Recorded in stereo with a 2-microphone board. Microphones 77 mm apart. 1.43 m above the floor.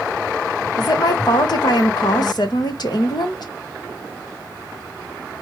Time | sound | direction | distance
0.8 | a woman speaking | 60° left (ahead or behind) | 1.1 m